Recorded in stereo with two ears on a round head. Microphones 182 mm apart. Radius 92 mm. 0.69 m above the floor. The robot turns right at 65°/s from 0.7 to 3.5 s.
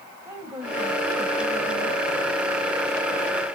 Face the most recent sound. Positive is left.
turn(degrees=170)